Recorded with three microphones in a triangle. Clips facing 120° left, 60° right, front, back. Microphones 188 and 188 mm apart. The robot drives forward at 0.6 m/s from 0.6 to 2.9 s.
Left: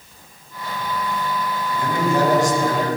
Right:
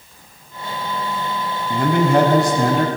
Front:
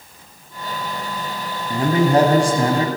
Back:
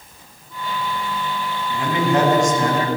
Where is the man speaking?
45° right, 2.5 m; by 2.9 s 60° right, 2 m.